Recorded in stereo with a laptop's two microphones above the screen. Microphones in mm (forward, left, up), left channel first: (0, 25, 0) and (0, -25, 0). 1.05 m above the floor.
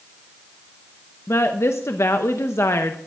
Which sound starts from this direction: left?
A woman speaking, at 1.3 s.